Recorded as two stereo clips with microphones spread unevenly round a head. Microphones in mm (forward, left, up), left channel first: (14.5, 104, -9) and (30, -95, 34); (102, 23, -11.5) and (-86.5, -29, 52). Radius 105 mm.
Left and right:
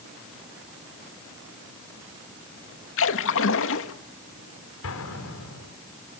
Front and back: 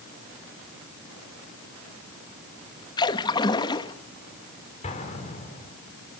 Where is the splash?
95° left, 1.3 m.